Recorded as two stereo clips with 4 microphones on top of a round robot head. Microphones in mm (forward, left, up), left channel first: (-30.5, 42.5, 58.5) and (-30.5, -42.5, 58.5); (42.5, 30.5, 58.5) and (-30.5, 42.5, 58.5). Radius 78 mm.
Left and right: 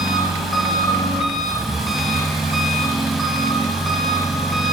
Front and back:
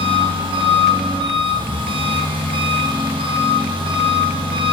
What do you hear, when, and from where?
0.0 s an engine running: straight behind, 1.1 m